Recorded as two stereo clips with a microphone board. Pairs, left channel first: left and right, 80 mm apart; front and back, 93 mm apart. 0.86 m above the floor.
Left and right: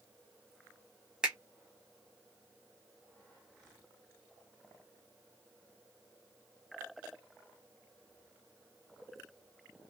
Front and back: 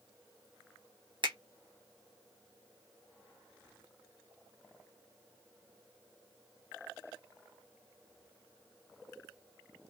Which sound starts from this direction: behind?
A finger snap, at 1.2 s.